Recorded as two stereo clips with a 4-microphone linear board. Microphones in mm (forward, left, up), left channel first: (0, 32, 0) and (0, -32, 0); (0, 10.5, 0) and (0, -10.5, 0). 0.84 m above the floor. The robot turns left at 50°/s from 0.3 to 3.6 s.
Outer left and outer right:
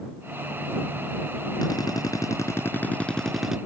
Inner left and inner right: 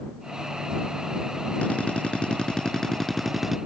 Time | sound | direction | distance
1.6 | a drill | 90° left | ?